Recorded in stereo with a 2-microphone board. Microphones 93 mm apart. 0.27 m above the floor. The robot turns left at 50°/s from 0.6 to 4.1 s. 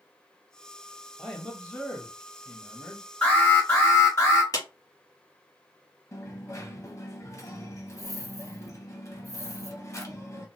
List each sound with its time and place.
1.2 s a man speaking: 5° left (ahead or behind), 0.9 m; by 3.1 s 25° left (ahead or behind), 0.9 m
3.2 s an alarm: 15° left (ahead or behind), 2.0 m; by 4.4 s 30° left (ahead or behind), 2.0 m
4.5 s a clap: 40° left (ahead or behind), 1.2 m
6.1 s a dropped coin: 35° left (ahead or behind), 0.8 m